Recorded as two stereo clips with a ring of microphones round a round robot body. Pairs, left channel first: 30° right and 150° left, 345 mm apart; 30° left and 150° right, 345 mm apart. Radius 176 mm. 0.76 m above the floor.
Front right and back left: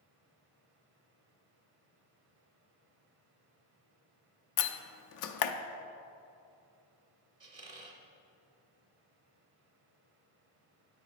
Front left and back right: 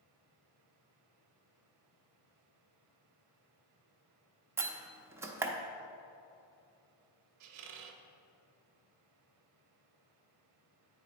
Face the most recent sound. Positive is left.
turn(degrees=-135)